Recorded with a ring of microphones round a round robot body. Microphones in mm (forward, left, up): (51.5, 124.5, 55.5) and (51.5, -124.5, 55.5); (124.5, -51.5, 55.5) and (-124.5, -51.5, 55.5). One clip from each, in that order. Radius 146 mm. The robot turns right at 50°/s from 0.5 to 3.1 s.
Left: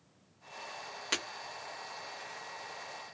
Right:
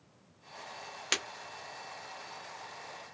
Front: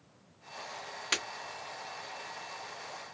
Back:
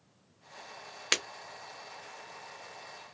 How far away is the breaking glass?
About 1.0 m.